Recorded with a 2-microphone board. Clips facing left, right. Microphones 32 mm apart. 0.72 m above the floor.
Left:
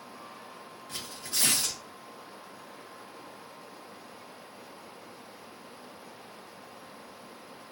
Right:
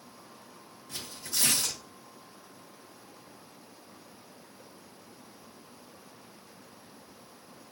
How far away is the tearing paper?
About 0.7 m.